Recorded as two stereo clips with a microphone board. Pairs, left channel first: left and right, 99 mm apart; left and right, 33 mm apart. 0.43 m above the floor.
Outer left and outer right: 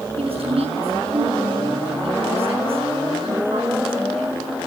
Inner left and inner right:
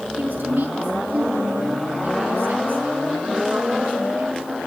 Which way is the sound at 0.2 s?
75° right (ahead or behind).